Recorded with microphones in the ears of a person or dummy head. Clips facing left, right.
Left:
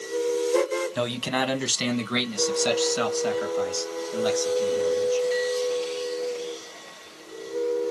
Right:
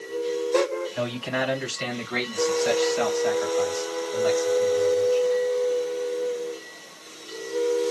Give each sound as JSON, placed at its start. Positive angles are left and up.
{"t": 0.9, "sound": "a man speaking", "side_deg": 70, "distance_m": 1.5}